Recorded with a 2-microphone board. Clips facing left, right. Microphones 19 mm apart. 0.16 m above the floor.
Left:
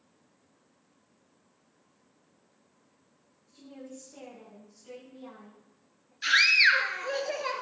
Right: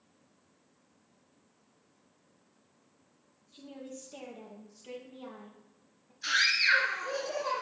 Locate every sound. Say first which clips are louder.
3.5 s a woman speaking: even; 45° right (ahead or behind), 4.5 m
6.2 s a scream: left 5 dB; 55° left (ahead or behind), 2.5 m